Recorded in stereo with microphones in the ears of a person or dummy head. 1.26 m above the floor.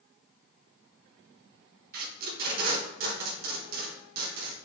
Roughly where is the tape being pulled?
Right.